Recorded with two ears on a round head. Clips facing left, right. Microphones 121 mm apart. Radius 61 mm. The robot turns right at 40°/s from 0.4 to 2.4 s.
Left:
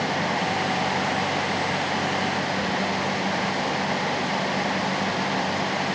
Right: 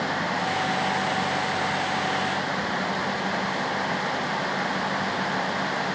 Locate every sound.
Only background noise.